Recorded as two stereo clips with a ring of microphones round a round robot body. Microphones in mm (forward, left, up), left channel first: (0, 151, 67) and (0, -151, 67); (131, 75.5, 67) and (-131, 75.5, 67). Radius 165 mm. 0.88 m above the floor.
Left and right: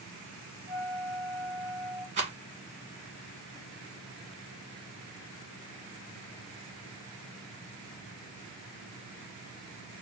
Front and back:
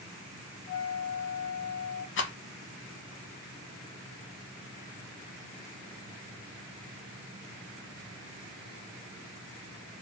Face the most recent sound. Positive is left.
turn(degrees=-25)